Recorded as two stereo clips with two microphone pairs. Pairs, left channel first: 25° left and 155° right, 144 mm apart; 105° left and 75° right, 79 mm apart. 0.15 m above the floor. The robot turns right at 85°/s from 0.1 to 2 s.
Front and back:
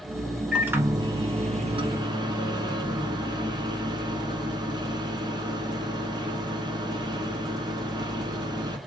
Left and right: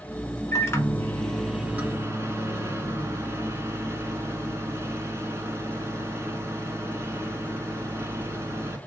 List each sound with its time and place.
0.5 s a microwave: 120° left, 1.1 m; by 8.8 s 110° right, 1.1 m